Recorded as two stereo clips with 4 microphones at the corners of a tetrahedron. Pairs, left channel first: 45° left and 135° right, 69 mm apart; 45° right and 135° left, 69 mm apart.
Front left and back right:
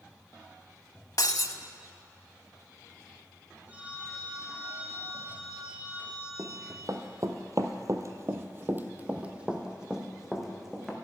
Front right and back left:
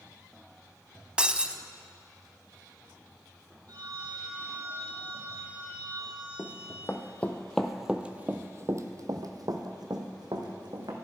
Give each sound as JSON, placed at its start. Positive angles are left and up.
{"t": 1.2, "sound": "breaking glass", "azimuth_deg": 65, "distance_m": 0.6}
{"t": 3.7, "sound": "a phone ringing", "azimuth_deg": 155, "distance_m": 2.5}
{"t": 6.4, "sound": "running footsteps", "azimuth_deg": -90, "distance_m": 1.2}